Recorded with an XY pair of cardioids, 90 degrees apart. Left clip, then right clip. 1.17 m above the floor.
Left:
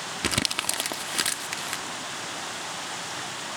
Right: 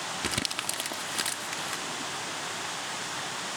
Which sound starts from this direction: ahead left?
Crumpling, at 0.2 s.